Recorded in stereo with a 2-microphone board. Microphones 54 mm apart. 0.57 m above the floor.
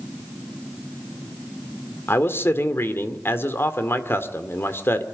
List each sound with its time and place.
2.1 s a man speaking: 50° left (ahead or behind), 1.9 m